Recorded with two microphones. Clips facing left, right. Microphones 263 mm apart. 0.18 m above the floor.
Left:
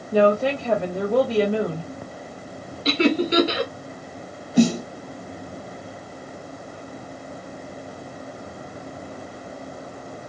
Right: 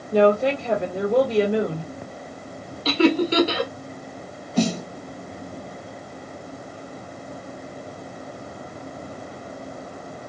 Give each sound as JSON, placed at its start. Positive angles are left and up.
{"t": 0.1, "sound": "a woman speaking", "side_deg": -20, "distance_m": 1.7}
{"t": 2.9, "sound": "laughter", "side_deg": 20, "distance_m": 1.7}
{"t": 4.6, "sound": "a snare drum", "side_deg": 15, "distance_m": 0.9}